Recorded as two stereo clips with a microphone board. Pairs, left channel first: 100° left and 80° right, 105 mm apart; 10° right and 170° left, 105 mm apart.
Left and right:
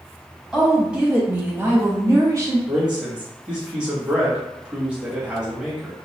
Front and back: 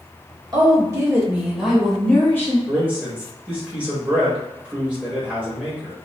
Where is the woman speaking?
160° right, 1.1 m; by 2.6 s 60° right, 1.0 m.